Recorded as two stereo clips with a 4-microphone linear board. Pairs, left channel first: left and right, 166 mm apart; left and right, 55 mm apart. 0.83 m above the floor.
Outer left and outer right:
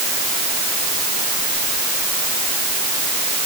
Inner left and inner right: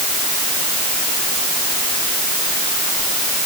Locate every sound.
Only background noise.